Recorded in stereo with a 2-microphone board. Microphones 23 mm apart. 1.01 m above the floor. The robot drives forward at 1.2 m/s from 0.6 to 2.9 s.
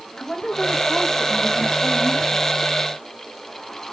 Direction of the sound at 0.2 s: 30° left (ahead or behind).